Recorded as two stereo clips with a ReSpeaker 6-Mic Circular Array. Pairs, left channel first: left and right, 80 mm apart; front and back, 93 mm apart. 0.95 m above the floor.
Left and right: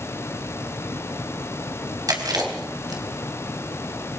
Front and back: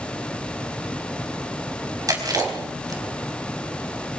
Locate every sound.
2.1 s chewing: 130° right, 4 m